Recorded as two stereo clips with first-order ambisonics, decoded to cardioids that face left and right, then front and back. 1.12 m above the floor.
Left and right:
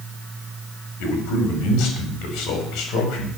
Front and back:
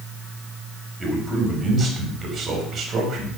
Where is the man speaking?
105° left, 5.5 m; by 3.3 s 125° left, 5.5 m.